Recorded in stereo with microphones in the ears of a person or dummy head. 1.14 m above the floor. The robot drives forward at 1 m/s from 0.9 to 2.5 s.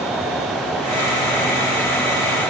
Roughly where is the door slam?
I don't hear a door slam.